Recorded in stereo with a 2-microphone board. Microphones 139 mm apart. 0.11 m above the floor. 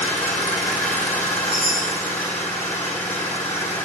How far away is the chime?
About 3 m.